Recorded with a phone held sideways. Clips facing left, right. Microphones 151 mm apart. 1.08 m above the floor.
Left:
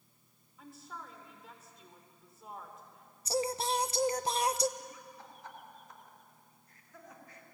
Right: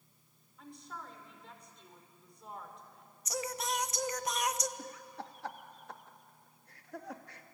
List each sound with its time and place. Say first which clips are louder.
0.6 s a woman speaking: even; 5° left (ahead or behind), 4 m
3.2 s singing: left 5 dB; 30° left (ahead or behind), 0.7 m
4.8 s laughter: right 4 dB; 75° right (ahead or behind), 1.8 m